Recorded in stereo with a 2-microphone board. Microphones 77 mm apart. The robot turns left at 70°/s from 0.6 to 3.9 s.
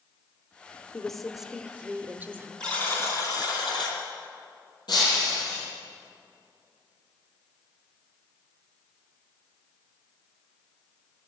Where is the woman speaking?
10° left (ahead or behind), 0.8 m; by 2.5 s 25° right (ahead or behind), 0.8 m.